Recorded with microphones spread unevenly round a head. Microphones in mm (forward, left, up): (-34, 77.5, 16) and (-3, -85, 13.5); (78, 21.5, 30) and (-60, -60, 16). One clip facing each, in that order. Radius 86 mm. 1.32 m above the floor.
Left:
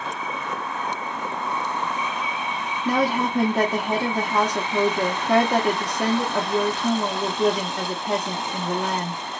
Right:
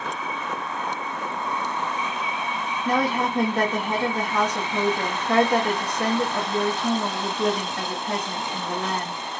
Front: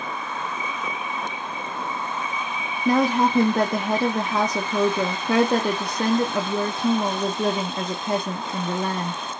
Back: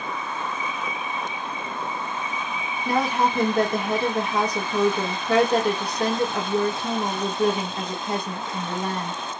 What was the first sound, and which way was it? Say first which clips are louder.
A woman speaking: left 1 dB, front 4 dB; 20° left.